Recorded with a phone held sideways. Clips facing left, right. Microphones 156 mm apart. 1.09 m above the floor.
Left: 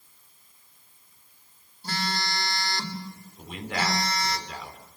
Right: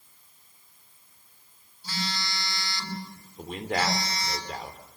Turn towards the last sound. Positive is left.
turn(degrees=-40)  # may be behind; listen again after turning